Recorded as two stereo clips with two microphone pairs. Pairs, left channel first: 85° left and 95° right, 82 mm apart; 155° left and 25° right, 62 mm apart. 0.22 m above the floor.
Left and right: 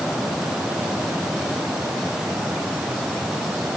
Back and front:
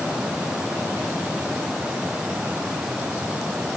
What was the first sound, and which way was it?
Only background noise.